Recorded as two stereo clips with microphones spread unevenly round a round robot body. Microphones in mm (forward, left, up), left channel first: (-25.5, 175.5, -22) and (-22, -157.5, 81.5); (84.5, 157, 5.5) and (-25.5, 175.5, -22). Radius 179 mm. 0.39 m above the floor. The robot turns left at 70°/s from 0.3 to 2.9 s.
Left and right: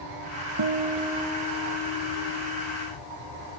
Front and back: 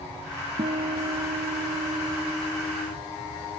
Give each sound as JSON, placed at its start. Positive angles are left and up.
{"t": 0.6, "sound": "a guitar", "azimuth_deg": -145}